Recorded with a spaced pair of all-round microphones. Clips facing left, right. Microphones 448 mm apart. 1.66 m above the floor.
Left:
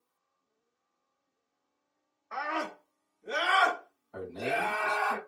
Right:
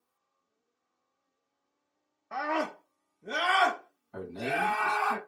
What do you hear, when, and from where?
2.3 s a scream: 55° right (ahead or behind), 0.8 m; by 5.1 s 25° right (ahead or behind), 2.5 m
4.1 s a man speaking: 35° right (ahead or behind), 2.5 m